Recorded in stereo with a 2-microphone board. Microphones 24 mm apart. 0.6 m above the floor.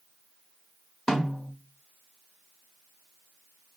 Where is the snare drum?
30° left (ahead or behind), 1.1 m.